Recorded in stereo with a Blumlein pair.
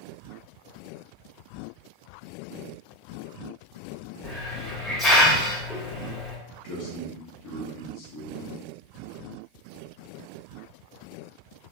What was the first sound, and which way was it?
A hiss, 20° left.